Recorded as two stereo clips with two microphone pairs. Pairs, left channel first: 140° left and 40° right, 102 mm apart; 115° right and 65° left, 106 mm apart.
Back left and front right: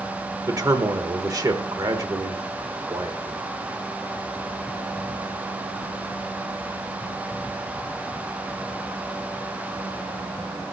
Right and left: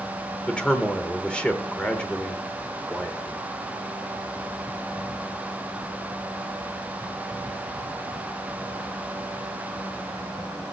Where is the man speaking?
50° right, 0.9 m.